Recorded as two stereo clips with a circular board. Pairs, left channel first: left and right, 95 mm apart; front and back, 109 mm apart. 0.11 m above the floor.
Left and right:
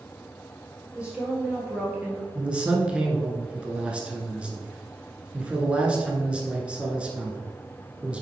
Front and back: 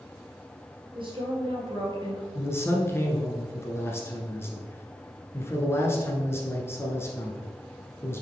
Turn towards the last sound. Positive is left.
turn(degrees=-25)